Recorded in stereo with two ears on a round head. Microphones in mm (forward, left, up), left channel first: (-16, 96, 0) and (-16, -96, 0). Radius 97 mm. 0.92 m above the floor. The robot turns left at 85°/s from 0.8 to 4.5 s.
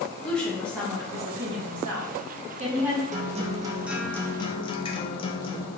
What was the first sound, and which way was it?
A woman speaking, 5° left.